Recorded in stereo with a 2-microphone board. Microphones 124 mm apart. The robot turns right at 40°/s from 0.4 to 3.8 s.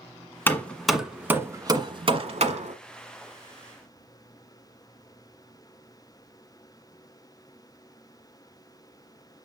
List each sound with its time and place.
0.5 s hammering: 20° left (ahead or behind), 1.2 m; by 2.8 s 70° right (ahead or behind), 1.2 m